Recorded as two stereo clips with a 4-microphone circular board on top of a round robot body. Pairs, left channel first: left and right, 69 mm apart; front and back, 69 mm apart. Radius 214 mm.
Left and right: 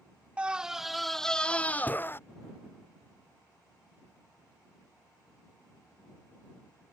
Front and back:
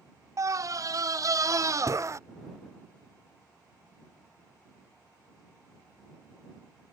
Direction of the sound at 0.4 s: 160° right.